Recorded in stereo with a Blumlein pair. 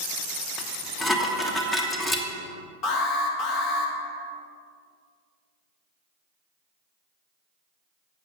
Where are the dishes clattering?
5° left, 1.2 m.